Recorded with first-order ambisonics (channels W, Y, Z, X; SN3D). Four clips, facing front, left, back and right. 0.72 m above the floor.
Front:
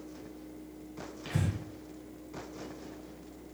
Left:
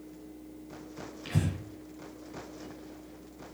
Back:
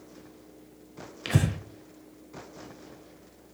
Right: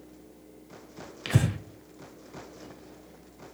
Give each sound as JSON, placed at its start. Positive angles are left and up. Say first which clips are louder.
{"t": 1.2, "sound": "breathing", "louder": "right 5 dB, back 7 dB", "azimuth_deg": -140, "distance_m": 0.9}